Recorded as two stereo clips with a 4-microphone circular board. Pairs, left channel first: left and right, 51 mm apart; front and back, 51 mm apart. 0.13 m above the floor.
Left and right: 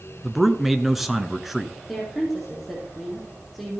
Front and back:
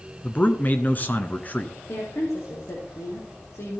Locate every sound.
0.2 s a man speaking: 5° right, 1.3 m
1.9 s a woman speaking: straight ahead, 4.5 m